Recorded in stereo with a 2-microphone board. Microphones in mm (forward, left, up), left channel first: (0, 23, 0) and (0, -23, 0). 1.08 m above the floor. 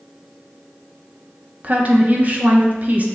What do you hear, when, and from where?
1.6 s a woman speaking: 35° right (ahead or behind), 0.7 m